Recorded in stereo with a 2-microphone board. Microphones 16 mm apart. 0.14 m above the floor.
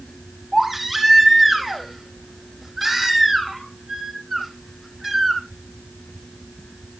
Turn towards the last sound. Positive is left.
turn(degrees=-5)  # may be behind; listen again after turning